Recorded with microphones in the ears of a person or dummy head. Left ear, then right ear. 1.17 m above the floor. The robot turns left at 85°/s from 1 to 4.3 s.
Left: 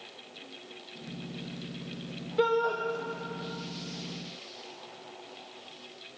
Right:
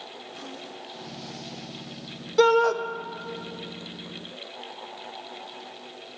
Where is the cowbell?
No cowbell in this recording.